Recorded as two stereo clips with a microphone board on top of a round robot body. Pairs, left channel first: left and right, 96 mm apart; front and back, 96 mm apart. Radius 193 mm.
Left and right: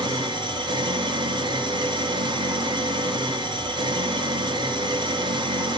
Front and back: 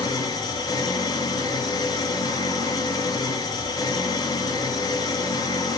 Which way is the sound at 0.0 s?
50° right.